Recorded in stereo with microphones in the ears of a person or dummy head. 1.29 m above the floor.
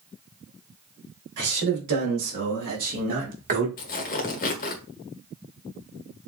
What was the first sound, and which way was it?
A man speaking, 50° right (ahead or behind).